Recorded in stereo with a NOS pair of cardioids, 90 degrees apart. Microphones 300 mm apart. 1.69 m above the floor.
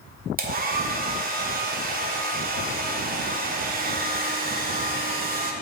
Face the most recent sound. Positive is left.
turn(degrees=-30)